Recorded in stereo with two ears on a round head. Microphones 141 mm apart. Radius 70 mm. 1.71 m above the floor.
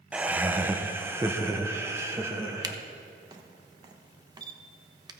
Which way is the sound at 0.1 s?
10° right (ahead or behind).